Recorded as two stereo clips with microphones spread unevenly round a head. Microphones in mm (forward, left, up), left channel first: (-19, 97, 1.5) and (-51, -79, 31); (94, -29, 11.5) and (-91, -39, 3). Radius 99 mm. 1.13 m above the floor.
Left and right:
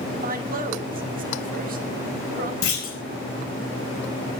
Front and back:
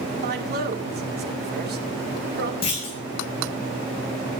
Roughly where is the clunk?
Ahead left.